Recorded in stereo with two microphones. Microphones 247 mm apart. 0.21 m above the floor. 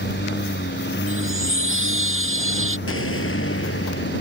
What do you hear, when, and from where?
0.0 s a lawn mower: 45° left (ahead or behind)
1.1 s a chime: 55° right (ahead or behind)
2.9 s an explosion: 60° left (ahead or behind)